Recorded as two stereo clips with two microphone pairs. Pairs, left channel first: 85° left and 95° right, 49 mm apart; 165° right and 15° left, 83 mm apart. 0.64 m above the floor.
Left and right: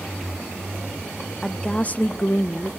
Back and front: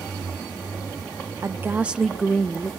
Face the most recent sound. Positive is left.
turn(degrees=125)